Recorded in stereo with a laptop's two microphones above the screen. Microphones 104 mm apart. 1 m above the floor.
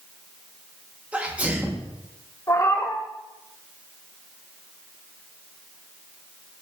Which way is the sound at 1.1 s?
15° right (ahead or behind).